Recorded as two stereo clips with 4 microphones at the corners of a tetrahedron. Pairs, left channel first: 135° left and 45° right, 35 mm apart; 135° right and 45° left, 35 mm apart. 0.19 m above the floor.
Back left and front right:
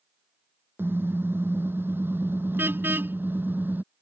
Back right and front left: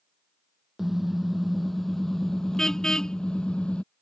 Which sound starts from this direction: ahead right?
A car horn, at 0.8 s.